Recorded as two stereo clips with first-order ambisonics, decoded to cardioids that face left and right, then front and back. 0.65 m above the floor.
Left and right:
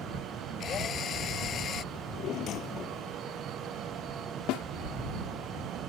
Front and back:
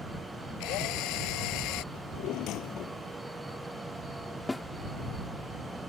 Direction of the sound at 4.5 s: 80° left.